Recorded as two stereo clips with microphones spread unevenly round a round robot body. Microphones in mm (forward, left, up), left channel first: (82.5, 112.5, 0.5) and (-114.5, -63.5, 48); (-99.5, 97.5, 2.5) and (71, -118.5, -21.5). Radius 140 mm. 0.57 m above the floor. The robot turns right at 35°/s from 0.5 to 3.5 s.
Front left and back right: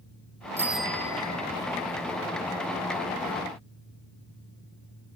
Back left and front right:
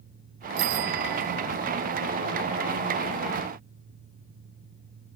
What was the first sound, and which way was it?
A bicycle bell, 55° right.